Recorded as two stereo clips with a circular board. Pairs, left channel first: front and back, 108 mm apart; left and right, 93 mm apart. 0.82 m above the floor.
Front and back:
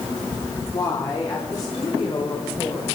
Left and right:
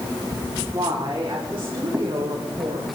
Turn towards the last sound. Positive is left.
turn(degrees=-55)